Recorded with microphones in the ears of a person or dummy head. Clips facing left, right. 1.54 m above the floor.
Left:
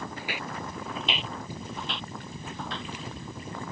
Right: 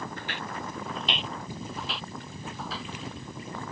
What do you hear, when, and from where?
0.2 s footsteps: 5° left (ahead or behind); by 2.9 s 5° right (ahead or behind)